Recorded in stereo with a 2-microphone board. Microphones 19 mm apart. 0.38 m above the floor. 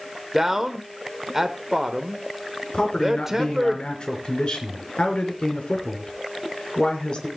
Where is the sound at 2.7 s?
65° left (ahead or behind), 4.5 m.